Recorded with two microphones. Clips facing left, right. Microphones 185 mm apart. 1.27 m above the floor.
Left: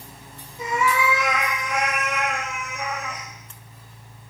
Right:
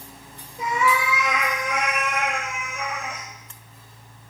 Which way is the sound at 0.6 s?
65° right (ahead or behind).